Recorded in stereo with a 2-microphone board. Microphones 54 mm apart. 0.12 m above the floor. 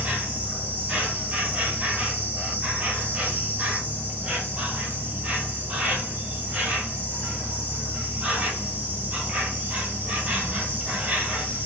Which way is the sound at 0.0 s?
25° right (ahead or behind).